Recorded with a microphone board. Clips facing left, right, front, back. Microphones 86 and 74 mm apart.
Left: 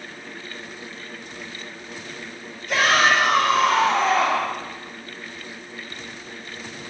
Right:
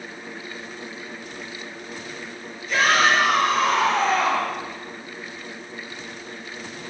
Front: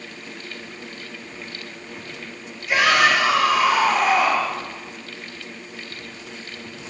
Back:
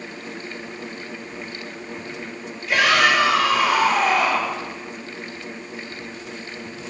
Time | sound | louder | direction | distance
2.7 | a shout | even, even | 70° left | 4.5 m